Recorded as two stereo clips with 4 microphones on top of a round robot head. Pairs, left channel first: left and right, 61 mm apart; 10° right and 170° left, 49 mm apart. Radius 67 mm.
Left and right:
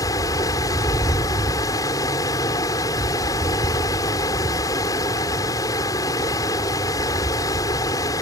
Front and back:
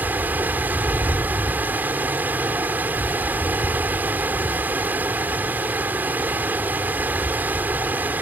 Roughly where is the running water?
Behind left.